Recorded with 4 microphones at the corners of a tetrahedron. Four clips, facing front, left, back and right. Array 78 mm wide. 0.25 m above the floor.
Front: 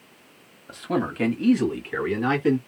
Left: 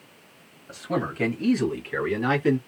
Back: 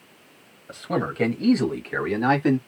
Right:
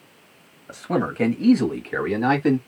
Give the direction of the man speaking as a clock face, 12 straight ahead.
3 o'clock.